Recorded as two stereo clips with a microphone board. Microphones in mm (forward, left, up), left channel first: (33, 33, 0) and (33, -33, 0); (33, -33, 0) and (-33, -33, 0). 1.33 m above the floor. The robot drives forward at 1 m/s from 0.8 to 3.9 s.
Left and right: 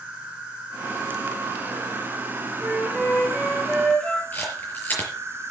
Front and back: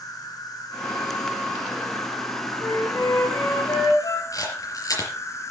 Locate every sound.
0.0 s an insect: 20° right, 5.5 m; by 5.5 s 40° right, 2.5 m
2.6 s a flute: 15° left, 8.5 m
4.3 s a camera shutter: 25° left, 5 m